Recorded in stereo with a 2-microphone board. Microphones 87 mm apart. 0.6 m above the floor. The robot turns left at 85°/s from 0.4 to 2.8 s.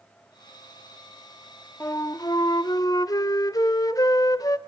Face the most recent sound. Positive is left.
turn(degrees=65)